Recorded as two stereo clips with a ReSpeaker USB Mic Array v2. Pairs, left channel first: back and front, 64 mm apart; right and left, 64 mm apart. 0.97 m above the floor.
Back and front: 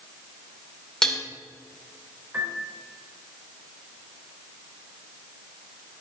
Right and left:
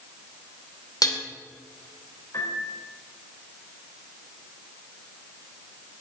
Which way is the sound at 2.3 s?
60° right.